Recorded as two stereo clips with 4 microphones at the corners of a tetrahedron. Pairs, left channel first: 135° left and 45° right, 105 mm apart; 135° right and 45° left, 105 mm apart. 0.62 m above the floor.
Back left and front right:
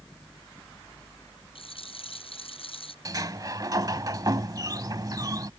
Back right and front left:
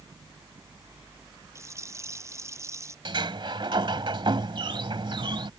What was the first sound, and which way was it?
A rattle, 105° left.